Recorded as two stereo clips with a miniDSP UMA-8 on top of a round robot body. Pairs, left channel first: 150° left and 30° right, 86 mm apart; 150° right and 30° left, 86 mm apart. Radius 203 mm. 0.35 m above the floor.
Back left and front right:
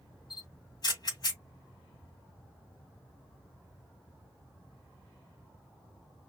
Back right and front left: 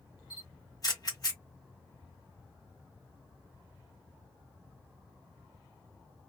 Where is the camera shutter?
175° left, 1.8 m.